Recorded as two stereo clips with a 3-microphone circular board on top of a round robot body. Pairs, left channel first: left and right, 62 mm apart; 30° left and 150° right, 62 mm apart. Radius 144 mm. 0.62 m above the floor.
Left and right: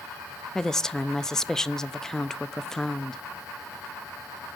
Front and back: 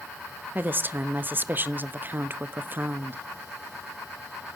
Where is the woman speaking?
170° left, 0.6 m.